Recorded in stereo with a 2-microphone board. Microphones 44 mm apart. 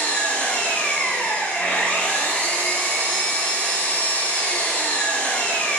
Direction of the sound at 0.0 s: 35° left (ahead or behind).